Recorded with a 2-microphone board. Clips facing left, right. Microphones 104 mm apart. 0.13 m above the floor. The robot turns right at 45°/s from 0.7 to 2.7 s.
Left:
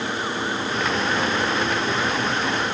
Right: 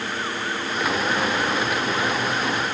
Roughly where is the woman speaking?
I don't hear a woman speaking.